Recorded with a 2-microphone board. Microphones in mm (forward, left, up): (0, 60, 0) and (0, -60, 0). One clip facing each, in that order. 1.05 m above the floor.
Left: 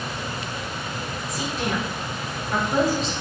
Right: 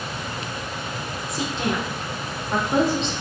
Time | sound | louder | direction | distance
1.3 | a woman speaking | right 2 dB | 25° right (ahead or behind) | 0.7 m